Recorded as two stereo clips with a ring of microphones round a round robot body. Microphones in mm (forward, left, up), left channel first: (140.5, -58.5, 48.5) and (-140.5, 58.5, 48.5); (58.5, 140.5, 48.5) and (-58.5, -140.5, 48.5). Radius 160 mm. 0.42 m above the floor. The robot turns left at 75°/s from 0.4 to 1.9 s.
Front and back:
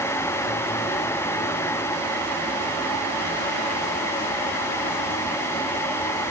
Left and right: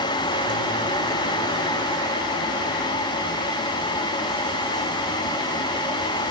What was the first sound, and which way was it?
Only background noise.